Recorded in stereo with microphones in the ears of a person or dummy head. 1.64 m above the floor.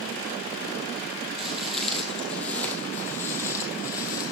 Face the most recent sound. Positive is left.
turn(degrees=20)  # may be behind; listen again after turning